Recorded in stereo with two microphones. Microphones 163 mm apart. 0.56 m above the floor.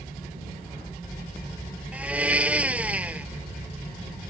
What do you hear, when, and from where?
1.9 s a blender: 10° right (ahead or behind)